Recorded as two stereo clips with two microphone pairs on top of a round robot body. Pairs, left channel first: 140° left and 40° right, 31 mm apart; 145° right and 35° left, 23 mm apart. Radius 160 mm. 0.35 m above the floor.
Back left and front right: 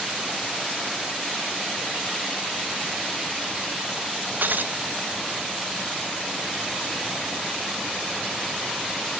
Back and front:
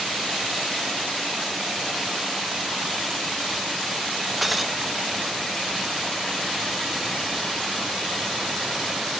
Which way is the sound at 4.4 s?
55° right.